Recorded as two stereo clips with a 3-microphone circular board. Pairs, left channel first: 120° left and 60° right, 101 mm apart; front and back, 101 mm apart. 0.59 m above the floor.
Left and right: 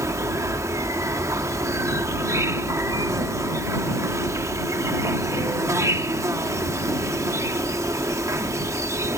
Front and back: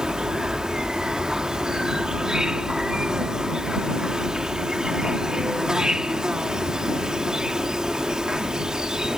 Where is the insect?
100° right.